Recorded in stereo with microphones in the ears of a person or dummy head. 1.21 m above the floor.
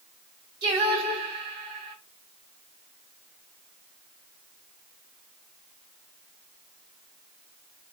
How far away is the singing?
About 2.5 m.